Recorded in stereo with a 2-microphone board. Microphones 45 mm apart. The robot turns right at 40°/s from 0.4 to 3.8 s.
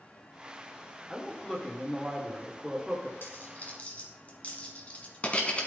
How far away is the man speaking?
About 1.3 m.